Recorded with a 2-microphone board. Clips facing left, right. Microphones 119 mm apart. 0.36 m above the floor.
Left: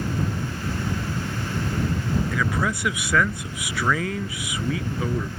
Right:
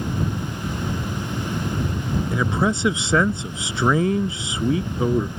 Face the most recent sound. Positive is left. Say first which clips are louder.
# right 4 dB
turn(degrees=-25)  # may be behind; listen again after turning